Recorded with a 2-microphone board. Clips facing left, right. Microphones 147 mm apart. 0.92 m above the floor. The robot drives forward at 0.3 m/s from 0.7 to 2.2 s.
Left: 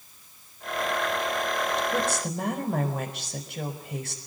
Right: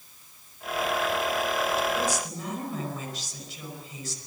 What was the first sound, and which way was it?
A woman speaking, 65° left (ahead or behind).